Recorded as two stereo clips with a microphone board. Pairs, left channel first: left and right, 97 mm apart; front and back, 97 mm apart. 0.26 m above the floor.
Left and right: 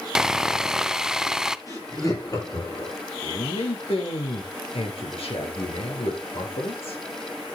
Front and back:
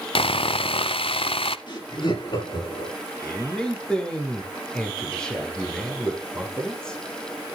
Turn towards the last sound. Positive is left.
turn(degrees=80)